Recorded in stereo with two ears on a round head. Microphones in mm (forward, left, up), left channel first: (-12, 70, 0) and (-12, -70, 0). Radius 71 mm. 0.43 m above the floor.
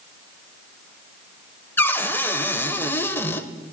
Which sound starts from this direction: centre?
A cupboard door, at 1.8 s.